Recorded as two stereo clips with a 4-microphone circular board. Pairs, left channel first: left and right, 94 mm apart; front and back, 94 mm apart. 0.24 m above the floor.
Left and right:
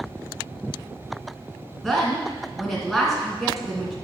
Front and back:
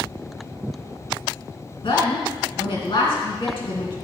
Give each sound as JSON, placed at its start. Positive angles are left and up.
{"t": 1.8, "sound": "a woman speaking", "azimuth_deg": 5, "distance_m": 2.5}